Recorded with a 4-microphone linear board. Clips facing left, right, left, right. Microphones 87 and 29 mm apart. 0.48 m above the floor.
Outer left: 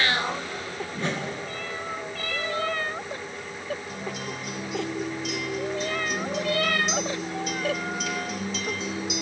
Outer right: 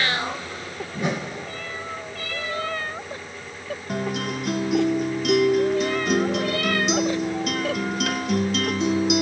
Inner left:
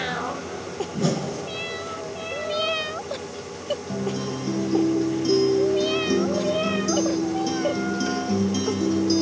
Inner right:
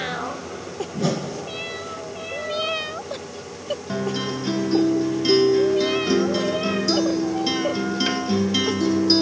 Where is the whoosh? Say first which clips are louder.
Outer right 4 dB, inner right 1 dB; 10° right (ahead or behind), 1.7 m.